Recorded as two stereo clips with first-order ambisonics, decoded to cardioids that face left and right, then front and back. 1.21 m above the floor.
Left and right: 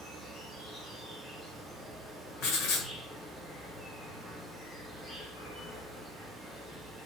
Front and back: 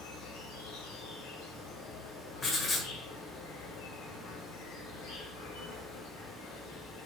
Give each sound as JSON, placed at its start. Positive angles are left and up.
{"t": 0.0, "sound": "an insect", "azimuth_deg": -5, "distance_m": 4.0}
{"t": 2.4, "sound": "writing", "azimuth_deg": 65, "distance_m": 1.6}